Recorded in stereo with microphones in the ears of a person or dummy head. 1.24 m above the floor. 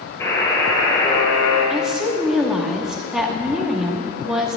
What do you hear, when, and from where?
0.2 s a buzzer: 15° left (ahead or behind), 6 m
1.7 s a woman speaking: 5° right (ahead or behind), 1.9 m